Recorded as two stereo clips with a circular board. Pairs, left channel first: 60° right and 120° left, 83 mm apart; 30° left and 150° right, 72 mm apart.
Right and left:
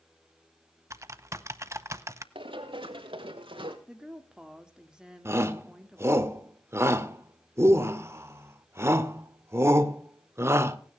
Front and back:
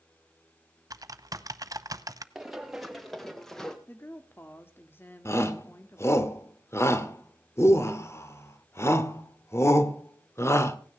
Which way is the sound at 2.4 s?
125° left.